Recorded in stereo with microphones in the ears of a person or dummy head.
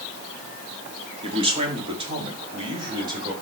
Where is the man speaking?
35° right (ahead or behind), 1.9 m.